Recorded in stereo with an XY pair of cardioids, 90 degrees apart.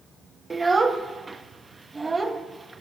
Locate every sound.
0.5 s a child speaking: 20° right, 1.0 m